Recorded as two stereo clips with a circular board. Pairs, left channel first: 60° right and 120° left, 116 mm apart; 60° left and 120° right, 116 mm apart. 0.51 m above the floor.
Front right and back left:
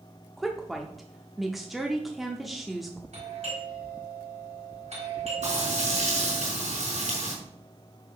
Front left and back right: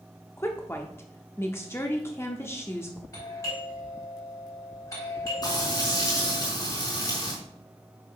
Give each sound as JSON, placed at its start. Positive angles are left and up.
{"t": 0.4, "sound": "a woman speaking", "azimuth_deg": 35, "distance_m": 0.8}
{"t": 3.1, "sound": "a doorbell", "azimuth_deg": 120, "distance_m": 4.0}
{"t": 5.4, "sound": "frying", "azimuth_deg": 115, "distance_m": 5.0}